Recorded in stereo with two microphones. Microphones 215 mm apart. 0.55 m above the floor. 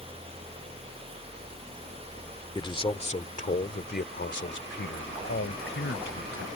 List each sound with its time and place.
2.5 s a man speaking: 20° left (ahead or behind); by 6.5 s 70° left (ahead or behind)